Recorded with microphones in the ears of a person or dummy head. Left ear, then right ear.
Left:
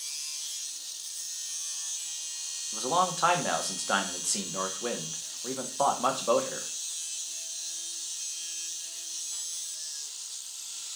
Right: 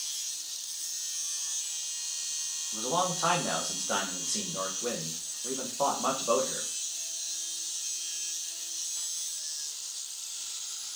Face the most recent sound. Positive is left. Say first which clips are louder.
# left 3 dB
turn(degrees=55)  # may be behind; listen again after turning